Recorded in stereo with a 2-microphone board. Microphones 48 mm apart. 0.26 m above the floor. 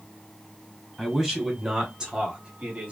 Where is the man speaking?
5° right (ahead or behind), 1.5 m; by 2.9 s 25° right (ahead or behind), 1.2 m.